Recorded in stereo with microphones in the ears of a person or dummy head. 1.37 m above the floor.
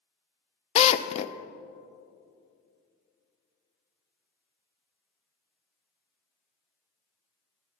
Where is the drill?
40° left (ahead or behind), 0.5 m.